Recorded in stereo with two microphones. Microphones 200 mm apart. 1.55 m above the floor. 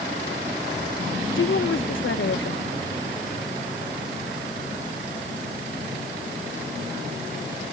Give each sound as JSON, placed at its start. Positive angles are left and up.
{"t": 1.4, "sound": "a woman speaking", "side_deg": 85}